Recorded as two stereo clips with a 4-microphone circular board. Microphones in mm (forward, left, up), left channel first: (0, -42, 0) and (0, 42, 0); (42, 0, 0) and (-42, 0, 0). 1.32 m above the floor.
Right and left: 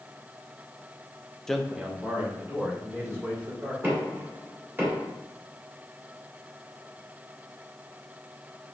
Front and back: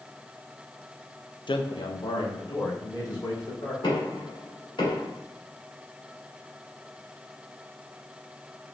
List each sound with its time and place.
1.5 s a man speaking: 10° right, 0.5 m; by 3.7 s 30° left, 3 m
3.8 s knocking: 25° left, 2.0 m